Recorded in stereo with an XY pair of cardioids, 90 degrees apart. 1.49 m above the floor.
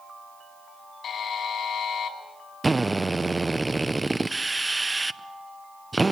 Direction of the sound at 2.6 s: 25° right.